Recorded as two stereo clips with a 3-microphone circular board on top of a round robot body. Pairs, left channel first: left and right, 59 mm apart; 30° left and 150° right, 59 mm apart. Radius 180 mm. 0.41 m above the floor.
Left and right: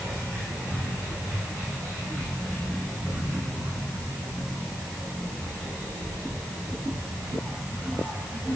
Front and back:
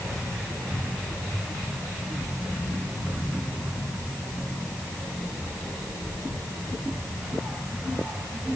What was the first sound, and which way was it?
Only background noise.